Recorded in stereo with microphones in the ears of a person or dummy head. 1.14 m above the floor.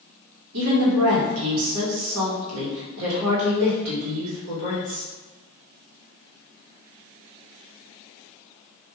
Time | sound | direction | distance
0.5 | a woman speaking | 90° right | 1.1 m